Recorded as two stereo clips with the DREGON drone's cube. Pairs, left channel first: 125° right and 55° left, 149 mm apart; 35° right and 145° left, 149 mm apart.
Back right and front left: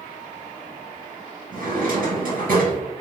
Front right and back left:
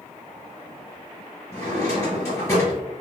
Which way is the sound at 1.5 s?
35° left.